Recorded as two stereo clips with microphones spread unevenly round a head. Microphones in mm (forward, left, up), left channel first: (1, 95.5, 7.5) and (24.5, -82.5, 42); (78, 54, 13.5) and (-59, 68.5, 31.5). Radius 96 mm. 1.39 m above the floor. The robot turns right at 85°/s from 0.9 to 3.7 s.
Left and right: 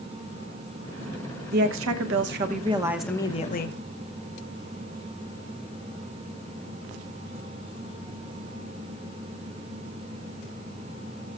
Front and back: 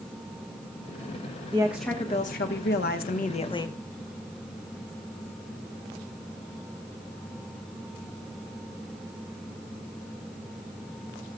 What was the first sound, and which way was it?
A woman speaking, 125° right.